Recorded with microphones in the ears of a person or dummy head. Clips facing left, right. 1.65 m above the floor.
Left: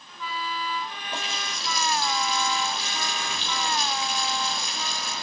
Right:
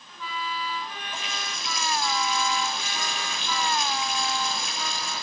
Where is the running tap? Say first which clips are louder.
Left 2 dB; 30° left (ahead or behind), 4.5 m.